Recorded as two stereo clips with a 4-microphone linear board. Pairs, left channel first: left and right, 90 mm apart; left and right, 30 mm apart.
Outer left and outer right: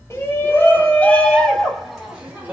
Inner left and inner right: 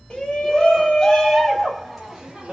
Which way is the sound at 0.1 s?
30° left (ahead or behind).